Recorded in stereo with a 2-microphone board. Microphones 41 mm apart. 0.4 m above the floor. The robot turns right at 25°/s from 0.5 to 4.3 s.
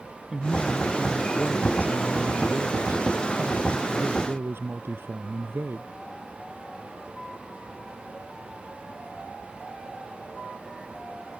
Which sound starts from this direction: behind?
A man speaking, at 0.3 s.